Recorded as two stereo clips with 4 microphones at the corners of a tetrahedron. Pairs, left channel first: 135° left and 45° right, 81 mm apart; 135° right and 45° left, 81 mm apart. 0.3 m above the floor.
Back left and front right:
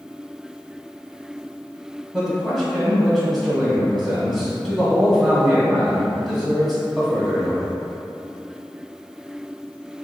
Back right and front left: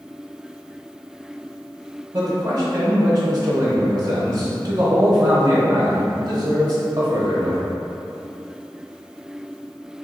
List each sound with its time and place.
2.1 s a man speaking: 55° left, 1.2 m